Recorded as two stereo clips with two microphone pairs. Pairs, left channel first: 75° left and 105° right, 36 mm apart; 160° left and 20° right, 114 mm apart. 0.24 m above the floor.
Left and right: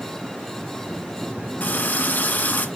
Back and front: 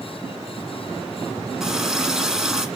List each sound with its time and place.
1.6 s a running tap: 65° left, 1.7 m